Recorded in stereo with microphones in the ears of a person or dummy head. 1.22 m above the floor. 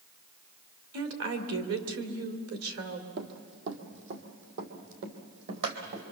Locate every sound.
0.9 s a woman speaking: 75° right (ahead or behind), 3 m
3.2 s running footsteps: 60° right (ahead or behind), 2.5 m; by 6.0 s 65° right (ahead or behind), 3.5 m